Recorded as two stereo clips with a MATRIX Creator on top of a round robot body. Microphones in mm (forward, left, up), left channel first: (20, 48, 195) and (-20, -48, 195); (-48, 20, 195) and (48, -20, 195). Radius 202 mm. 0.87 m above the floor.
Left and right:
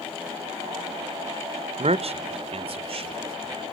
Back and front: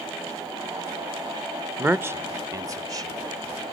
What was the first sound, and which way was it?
A man speaking, 95° right.